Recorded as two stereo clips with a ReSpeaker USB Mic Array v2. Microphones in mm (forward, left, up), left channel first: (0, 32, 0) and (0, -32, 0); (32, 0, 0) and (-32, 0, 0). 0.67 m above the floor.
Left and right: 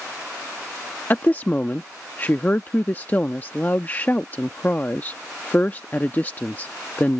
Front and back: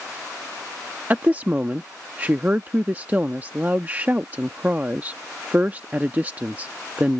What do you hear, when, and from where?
1.1 s a woman speaking: 130° left